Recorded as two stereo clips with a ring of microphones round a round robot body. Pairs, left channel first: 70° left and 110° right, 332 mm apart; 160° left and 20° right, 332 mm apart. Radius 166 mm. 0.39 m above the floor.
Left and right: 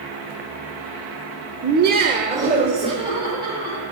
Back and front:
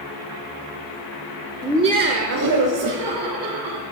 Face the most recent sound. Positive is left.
turn(degrees=-35)